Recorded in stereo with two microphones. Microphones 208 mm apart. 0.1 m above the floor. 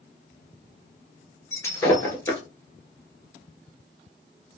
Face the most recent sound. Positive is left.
turn(degrees=15)  # may be behind; listen again after turning